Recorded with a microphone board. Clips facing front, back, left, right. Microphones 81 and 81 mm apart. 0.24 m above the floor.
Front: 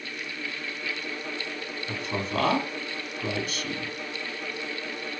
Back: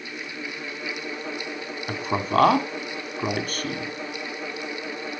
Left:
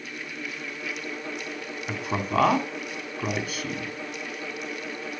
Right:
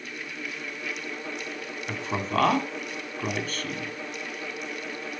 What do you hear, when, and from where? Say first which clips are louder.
1.9 s a man speaking: back 6 dB, left 1 dB; 170° left, 2.5 m